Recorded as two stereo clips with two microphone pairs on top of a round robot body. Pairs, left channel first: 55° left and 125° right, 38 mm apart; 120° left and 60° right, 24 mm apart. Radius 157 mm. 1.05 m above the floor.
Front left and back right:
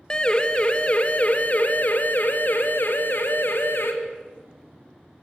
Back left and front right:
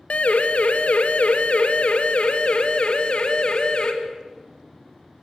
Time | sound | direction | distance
0.1 | a siren | 120° left | 3 m